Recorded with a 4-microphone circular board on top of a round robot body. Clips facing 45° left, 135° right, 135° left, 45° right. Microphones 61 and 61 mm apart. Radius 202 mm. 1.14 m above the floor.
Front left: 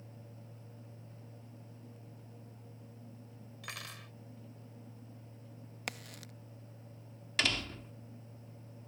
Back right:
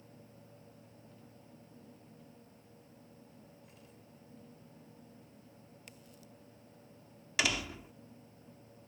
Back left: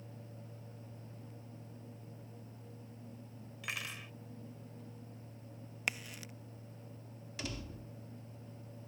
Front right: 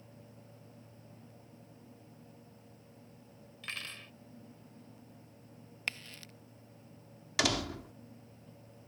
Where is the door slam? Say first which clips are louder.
Back right 1 dB, front right 12 dB; 55° right.